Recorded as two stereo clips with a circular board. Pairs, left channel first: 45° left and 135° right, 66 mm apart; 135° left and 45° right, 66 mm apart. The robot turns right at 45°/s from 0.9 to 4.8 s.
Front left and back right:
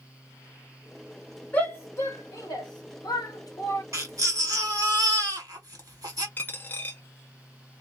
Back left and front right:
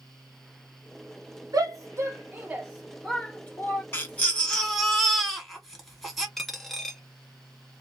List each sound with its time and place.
1.5 s a shout: 20° right, 0.9 m; by 3.8 s 85° left, 0.9 m
3.9 s a baby crying: 170° right, 1.5 m; by 6.3 s 130° right, 1.5 m
6.4 s a dropped coin: 45° left, 0.6 m